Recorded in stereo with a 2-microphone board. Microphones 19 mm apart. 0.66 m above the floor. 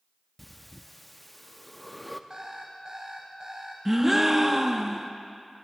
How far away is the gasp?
About 0.7 m.